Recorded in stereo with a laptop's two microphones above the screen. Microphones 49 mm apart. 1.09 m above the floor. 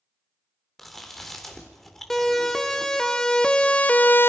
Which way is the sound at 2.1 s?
5° left (ahead or behind).